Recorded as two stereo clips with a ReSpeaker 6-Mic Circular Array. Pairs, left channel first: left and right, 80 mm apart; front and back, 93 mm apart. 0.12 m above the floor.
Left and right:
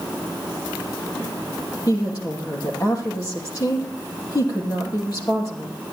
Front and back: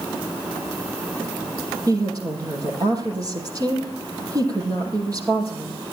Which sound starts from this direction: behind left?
A woman speaking, at 1.9 s.